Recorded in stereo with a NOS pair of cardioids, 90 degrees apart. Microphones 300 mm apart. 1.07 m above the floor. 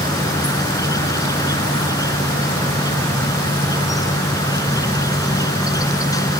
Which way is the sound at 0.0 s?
10° left.